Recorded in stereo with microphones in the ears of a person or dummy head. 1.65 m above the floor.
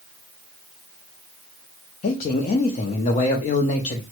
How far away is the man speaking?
About 0.6 m.